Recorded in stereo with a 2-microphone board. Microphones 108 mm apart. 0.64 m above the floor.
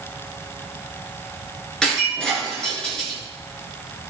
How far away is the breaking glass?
About 6 m.